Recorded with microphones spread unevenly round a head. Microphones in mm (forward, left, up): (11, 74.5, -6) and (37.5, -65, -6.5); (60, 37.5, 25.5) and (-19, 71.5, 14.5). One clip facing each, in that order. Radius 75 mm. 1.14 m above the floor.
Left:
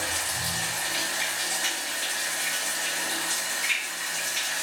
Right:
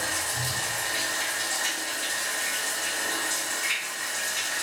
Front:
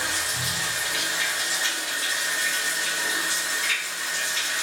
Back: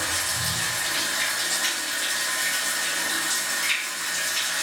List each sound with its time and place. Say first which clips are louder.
0.0 s running water: right 1 dB, even; 115° left, 1.5 m